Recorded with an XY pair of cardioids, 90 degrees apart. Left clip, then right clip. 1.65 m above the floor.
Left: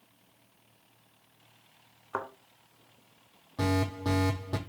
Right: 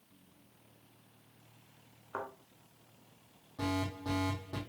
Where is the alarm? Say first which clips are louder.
Left 6 dB; 65° left, 5 m.